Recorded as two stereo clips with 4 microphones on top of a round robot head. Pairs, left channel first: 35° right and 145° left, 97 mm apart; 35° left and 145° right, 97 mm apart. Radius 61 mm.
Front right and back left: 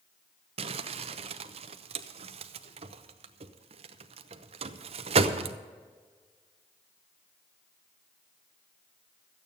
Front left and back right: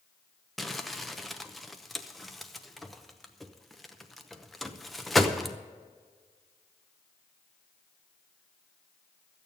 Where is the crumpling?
125° left, 0.8 m.